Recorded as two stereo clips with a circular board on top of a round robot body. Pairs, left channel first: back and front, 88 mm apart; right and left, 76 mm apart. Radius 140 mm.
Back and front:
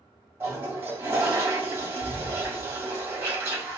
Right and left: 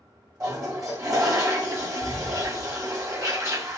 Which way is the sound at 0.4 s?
55° left.